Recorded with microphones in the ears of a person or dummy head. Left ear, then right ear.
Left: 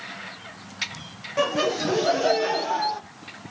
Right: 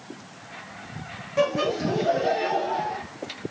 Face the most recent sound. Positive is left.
turn(degrees=55)  # may be behind; listen again after turning